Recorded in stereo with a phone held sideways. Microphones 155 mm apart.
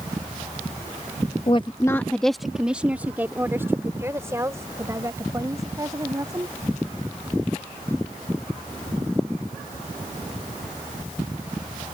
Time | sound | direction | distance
1.5 | a woman speaking | 35° left (ahead or behind) | ?